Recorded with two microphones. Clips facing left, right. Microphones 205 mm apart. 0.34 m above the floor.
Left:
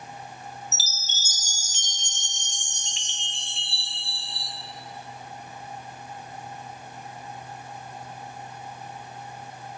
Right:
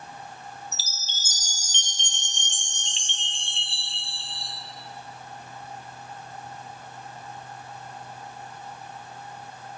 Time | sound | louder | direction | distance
0.7 | a chime | left 1 dB | 30° right (ahead or behind) | 1.5 m